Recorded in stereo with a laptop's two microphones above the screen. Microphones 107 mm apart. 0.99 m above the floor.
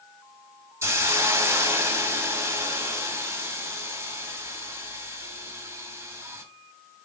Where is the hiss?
25° right (ahead or behind), 1.3 m.